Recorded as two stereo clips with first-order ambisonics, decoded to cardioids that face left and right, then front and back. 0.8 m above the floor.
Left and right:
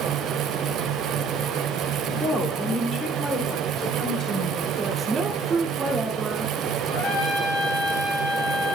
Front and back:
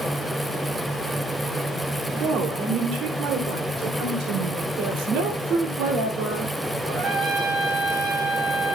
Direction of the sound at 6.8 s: 115° left.